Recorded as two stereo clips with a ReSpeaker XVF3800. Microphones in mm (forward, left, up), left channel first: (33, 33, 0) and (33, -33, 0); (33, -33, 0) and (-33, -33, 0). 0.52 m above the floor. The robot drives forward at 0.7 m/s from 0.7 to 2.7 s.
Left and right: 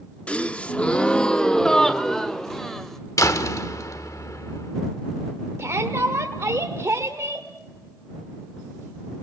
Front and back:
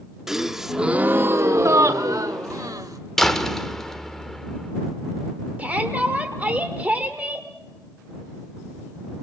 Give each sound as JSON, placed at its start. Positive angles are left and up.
{"t": 0.3, "sound": "a gasp", "azimuth_deg": 110, "distance_m": 0.6}
{"t": 3.2, "sound": "a door slam", "azimuth_deg": 85, "distance_m": 1.1}
{"t": 5.6, "sound": "a shout", "azimuth_deg": -120, "distance_m": 1.5}